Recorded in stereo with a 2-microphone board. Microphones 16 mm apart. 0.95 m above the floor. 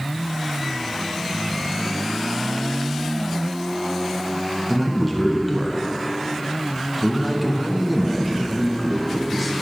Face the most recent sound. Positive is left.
turn(degrees=0)  # may be behind; listen again after turning